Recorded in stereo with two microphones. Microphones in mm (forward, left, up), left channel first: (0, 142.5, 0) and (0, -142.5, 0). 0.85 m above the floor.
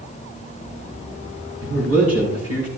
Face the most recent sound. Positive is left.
turn(degrees=-55)  # may be behind; listen again after turning